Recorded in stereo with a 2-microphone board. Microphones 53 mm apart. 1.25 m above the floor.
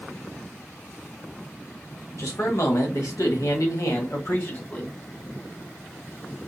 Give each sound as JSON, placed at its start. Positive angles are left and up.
{"t": 2.2, "sound": "a man speaking", "side_deg": 70, "distance_m": 1.4}